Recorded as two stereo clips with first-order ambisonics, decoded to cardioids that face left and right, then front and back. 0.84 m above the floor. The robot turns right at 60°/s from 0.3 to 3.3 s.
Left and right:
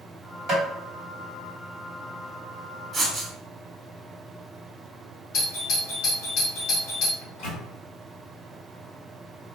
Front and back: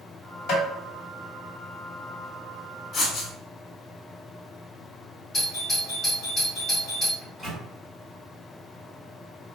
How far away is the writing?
About 0.7 m.